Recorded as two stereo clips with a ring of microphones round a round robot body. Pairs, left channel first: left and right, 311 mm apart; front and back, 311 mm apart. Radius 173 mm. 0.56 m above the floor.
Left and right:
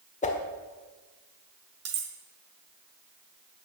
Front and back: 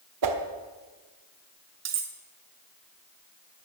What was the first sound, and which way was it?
A whoosh, 160° left.